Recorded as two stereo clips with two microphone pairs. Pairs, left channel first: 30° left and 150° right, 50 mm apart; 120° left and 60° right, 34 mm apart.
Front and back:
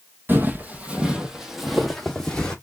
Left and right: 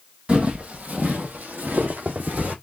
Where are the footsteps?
105° right, 1.3 m; by 2.5 s 40° right, 1.6 m.